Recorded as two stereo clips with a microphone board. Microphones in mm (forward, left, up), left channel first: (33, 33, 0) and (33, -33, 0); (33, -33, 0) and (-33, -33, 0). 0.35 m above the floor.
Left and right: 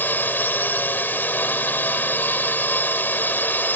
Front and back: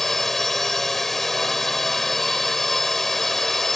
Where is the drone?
80° left.